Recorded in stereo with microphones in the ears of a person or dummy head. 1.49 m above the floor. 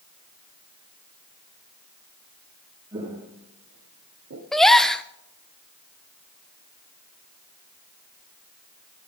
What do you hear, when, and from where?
2.9 s footsteps: 20° right (ahead or behind), 2.5 m; by 4.4 s 50° right (ahead or behind), 2.5 m
4.5 s a gasp: 5° right (ahead or behind), 0.7 m